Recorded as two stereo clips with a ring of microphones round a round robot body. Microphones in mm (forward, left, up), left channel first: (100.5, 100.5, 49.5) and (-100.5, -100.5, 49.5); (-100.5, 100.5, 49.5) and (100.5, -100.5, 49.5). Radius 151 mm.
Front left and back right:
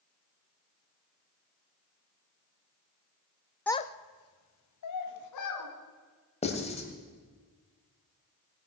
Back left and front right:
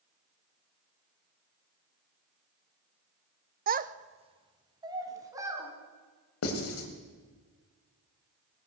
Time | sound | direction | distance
3.7 | a child speaking | 35° right | 0.5 m
6.4 | writing | 110° left | 1.9 m